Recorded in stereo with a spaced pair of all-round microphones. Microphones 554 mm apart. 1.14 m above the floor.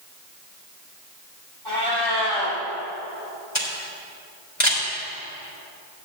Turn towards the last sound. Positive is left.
turn(degrees=75)  # may be behind; listen again after turning